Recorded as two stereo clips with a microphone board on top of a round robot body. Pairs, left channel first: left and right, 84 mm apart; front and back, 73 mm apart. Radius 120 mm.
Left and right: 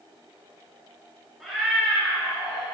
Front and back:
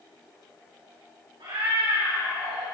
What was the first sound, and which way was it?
A cat meowing, straight behind.